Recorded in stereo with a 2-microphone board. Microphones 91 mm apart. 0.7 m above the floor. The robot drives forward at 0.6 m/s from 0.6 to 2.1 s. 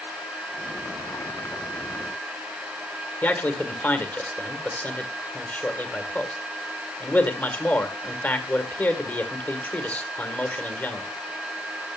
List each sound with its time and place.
3.2 s a man speaking: 20° left (ahead or behind), 2 m